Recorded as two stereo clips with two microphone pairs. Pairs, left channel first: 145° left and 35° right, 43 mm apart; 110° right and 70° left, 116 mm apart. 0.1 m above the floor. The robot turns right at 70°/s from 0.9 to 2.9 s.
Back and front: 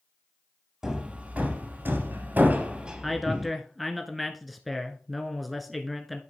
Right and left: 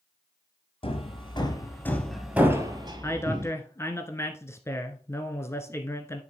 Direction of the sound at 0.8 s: 110° right.